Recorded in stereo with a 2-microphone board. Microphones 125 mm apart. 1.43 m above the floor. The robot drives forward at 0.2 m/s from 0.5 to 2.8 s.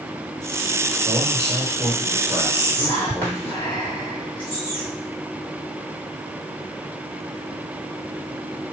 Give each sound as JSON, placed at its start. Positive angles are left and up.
{"t": 1.1, "sound": "a man speaking", "side_deg": -25, "distance_m": 1.4}
{"t": 2.5, "sound": "whispering", "side_deg": 15, "distance_m": 1.7}